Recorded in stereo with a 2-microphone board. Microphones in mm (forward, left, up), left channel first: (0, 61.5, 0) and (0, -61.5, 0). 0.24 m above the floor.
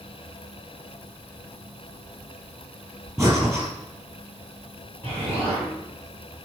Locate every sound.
3.2 s breathing: 25° right (ahead or behind), 4 m
5.0 s an explosion: 45° right (ahead or behind), 6 m